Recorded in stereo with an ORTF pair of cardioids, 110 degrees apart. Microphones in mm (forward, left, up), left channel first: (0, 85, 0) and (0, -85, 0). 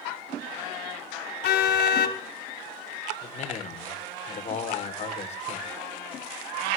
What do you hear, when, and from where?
1.4 s a car horn: 65° left, 3 m
3.2 s a man speaking: 40° left, 4 m